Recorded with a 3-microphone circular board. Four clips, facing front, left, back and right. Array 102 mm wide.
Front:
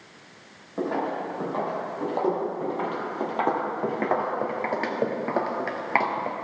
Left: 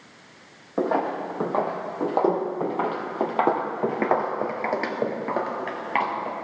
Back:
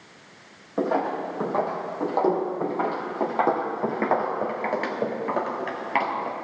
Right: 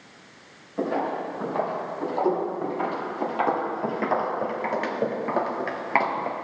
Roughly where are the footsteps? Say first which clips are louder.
Left 2 dB, back 3 dB; left.